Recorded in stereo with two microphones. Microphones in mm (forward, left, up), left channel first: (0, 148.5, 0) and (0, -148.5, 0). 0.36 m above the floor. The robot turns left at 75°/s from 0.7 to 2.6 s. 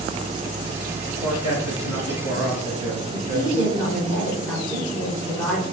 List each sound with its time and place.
1.2 s a man speaking: 130° left, 3.5 m; by 3.7 s 25° left, 3.5 m
3.1 s a woman speaking: 10° left (ahead or behind), 4 m